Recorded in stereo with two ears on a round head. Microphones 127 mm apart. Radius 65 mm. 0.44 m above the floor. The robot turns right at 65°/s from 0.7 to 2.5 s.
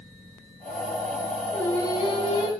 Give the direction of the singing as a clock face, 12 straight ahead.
12 o'clock.